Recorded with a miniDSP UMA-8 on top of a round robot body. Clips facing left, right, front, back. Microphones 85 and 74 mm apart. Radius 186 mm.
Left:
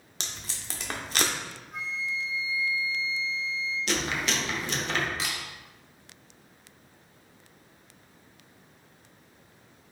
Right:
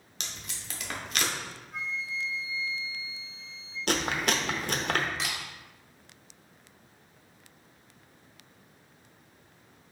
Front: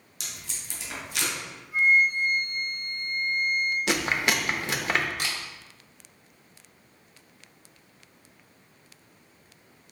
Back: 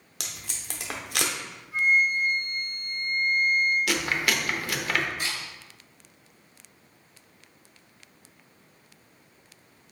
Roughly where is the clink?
I don't hear a clink.